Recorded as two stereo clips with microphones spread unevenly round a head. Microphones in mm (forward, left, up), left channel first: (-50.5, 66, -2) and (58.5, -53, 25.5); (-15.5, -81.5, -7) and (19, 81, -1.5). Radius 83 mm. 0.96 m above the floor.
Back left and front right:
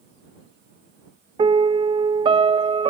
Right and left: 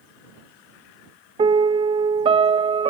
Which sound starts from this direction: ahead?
A piano, at 1.4 s.